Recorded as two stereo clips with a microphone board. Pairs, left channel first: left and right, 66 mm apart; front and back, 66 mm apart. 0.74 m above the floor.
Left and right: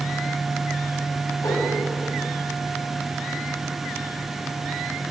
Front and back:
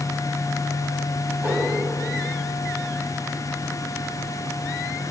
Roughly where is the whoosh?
Behind left.